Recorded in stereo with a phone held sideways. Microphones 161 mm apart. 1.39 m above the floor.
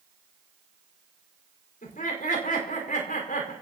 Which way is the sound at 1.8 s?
70° left (ahead or behind).